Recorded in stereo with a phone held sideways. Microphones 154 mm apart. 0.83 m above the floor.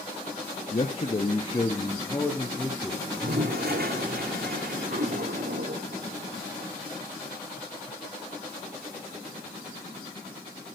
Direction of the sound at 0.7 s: 45° left (ahead or behind).